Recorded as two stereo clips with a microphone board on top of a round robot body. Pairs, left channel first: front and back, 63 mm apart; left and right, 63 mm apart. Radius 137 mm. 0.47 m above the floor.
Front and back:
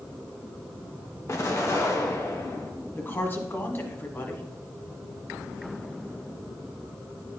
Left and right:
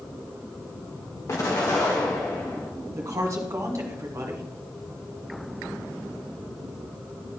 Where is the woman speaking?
55° right, 1.4 m.